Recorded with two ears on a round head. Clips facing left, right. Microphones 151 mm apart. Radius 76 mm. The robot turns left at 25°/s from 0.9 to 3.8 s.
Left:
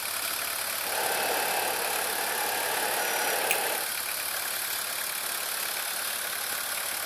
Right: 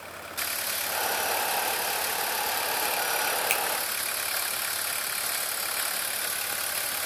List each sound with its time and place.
3.5 s a finger snap: 10° right (ahead or behind), 2.5 m; by 3.6 s 5° right (ahead or behind), 2.5 m